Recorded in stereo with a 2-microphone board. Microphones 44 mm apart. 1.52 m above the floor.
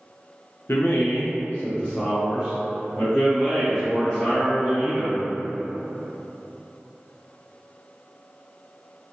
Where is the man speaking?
75° left (ahead or behind), 0.5 m; by 5.2 s 5° right (ahead or behind), 2.5 m.